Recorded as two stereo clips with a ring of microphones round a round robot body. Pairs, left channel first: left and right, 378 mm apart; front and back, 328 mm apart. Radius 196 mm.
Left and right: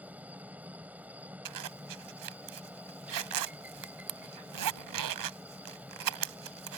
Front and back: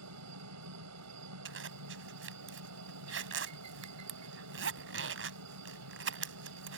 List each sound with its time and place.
0.0 s a helicopter: 175° right
1.4 s a zipper: 125° right